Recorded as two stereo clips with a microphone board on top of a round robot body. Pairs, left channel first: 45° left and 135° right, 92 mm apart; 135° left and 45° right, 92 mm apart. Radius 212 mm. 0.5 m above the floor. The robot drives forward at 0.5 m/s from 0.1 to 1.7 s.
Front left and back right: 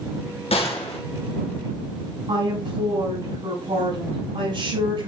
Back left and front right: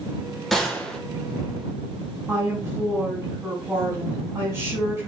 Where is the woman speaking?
110° right, 4.5 m.